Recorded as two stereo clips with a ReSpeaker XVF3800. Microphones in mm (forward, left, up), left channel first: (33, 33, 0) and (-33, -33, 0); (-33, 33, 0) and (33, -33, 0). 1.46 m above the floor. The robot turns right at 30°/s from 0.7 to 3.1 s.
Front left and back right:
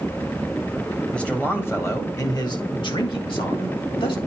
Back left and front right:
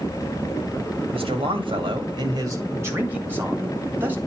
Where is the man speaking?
35° right, 2 m; by 4.2 s 25° left, 2 m.